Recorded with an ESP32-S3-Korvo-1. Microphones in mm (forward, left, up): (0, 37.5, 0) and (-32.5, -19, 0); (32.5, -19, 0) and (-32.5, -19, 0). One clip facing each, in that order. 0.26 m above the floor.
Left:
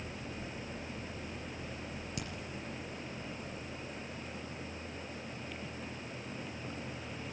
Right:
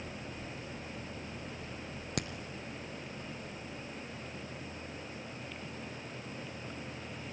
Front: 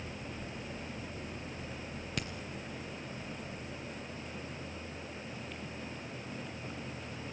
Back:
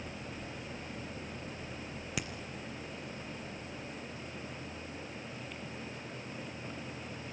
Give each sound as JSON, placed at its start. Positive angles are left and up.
{"t": 2.2, "sound": "a crack", "azimuth_deg": -95, "distance_m": 2.5}